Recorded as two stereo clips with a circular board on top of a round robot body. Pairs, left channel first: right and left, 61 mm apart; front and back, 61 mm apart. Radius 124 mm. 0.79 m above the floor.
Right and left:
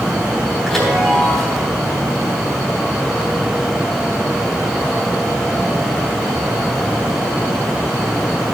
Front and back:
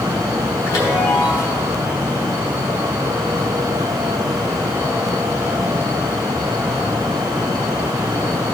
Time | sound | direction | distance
0.7 | a chime | 10° right | 3.5 m